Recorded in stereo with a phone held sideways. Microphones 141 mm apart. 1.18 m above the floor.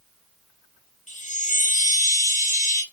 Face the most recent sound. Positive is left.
turn(degrees=60)  # may be behind; listen again after turning